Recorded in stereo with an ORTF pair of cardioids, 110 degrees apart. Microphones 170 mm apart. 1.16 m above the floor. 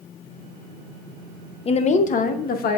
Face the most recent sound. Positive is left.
turn(degrees=65)